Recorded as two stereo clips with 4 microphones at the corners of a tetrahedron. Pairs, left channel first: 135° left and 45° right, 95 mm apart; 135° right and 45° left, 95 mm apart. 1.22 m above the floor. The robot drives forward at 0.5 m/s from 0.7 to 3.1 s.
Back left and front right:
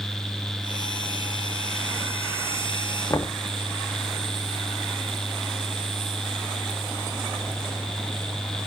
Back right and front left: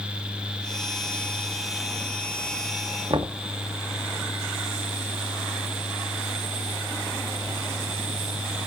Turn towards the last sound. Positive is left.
turn(degrees=75)